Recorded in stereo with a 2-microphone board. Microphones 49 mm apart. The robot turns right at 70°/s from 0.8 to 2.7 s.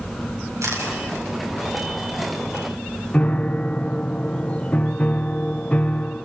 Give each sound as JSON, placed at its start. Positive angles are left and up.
{"t": 0.6, "sound": "a camera shutter", "side_deg": -85, "distance_m": 6.5}
{"t": 3.1, "sound": "a piano", "side_deg": 25, "distance_m": 0.5}